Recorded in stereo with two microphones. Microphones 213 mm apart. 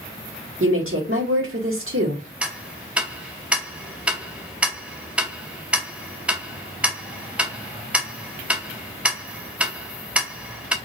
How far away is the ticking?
About 0.5 m.